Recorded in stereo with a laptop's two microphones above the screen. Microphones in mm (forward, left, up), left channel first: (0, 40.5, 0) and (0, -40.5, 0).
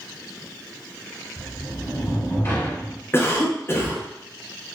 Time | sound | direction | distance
1.4 | a sliding door | 35° left (ahead or behind) | 1.2 m
3.1 | a cough | 30° left (ahead or behind) | 0.8 m